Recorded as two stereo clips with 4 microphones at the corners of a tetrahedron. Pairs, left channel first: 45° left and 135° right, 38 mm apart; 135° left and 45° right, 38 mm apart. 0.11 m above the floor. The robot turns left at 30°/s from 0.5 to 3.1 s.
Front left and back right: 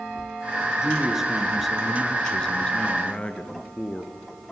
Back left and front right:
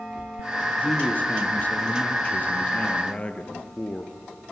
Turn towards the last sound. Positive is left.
turn(degrees=95)